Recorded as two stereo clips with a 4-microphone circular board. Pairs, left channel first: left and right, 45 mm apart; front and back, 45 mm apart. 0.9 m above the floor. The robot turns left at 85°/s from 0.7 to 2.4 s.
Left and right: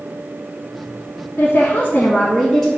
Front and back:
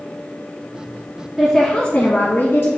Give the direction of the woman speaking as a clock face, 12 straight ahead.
9 o'clock.